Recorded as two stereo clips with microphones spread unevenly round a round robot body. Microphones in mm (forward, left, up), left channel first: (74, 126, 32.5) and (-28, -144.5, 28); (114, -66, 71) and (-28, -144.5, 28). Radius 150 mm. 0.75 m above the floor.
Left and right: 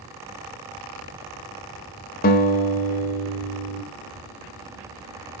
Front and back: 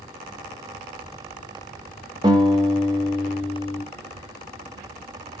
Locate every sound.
2.2 s a guitar: 130° left, 1.2 m